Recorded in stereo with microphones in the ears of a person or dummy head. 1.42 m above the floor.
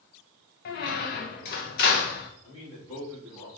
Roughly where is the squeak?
Left.